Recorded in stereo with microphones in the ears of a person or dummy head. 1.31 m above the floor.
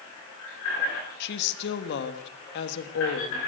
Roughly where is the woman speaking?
Left.